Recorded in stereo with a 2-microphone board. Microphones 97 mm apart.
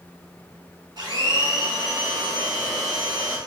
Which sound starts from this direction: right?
A blender, at 1.0 s.